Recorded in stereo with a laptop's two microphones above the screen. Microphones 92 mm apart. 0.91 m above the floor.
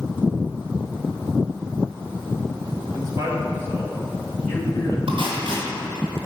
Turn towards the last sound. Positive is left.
turn(degrees=-80)